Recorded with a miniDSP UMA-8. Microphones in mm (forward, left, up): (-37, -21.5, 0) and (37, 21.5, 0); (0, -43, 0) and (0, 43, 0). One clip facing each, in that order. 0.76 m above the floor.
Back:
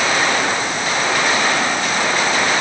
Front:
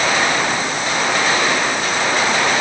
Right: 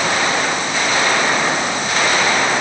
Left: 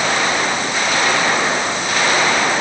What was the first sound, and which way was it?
Only background noise.